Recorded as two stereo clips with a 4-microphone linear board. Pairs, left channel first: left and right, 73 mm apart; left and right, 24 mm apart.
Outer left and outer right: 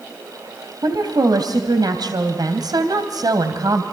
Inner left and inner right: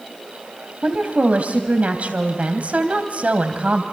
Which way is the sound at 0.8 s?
70° right (ahead or behind).